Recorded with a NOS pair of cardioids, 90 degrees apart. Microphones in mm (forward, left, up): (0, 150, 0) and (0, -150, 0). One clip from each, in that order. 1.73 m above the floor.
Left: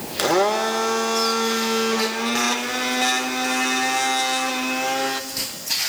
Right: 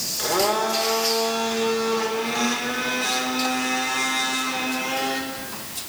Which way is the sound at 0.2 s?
60° left.